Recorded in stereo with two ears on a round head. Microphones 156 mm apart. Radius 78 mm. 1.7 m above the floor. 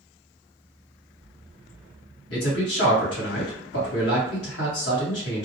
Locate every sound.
2.3 s a man speaking: 70° left (ahead or behind), 1.3 m